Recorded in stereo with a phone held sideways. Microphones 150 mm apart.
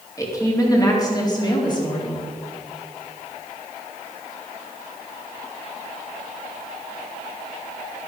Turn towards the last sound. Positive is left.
turn(degrees=30)  # may be behind; listen again after turning